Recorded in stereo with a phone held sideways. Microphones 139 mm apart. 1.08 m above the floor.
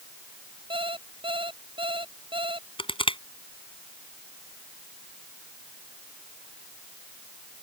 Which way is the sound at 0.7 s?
40° right (ahead or behind).